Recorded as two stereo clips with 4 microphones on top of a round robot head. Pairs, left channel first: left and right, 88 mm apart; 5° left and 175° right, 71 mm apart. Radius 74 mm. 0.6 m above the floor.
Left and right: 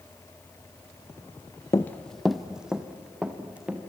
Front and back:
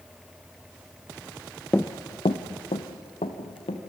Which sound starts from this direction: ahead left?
Running footsteps, at 1.7 s.